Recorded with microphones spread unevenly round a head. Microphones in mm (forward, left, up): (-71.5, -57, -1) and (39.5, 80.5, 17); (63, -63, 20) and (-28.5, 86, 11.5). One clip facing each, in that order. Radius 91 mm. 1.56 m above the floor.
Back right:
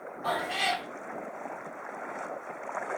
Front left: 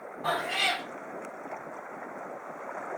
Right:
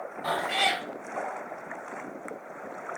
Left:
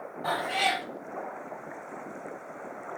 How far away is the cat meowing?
About 2 m.